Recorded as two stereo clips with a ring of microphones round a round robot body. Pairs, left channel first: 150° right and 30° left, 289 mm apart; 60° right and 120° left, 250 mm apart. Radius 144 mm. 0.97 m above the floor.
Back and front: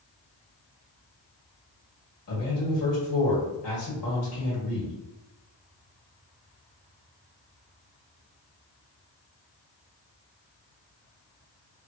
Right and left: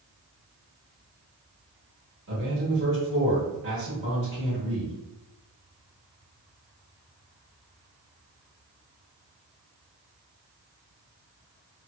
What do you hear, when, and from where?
2.3 s a man speaking: 175° left, 1.8 m